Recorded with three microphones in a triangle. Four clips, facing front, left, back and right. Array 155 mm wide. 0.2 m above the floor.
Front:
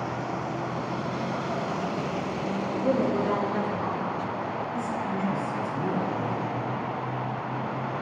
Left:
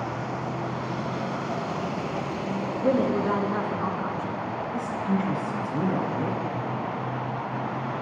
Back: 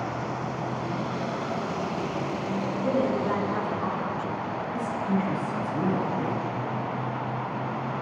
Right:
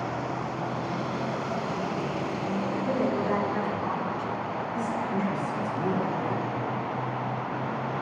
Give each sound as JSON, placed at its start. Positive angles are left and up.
{"t": 2.8, "sound": "a woman speaking", "azimuth_deg": 75, "distance_m": 3.0}
{"t": 4.7, "sound": "a woman speaking", "azimuth_deg": 115, "distance_m": 6.0}